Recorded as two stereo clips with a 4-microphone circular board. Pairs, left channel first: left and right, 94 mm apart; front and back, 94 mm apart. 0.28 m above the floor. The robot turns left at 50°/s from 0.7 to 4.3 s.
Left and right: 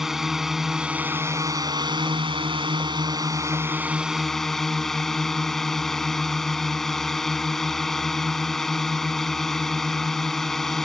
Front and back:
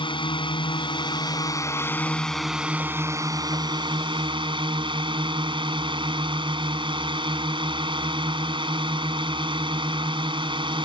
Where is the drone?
5° right; by 10.8 s 175° left.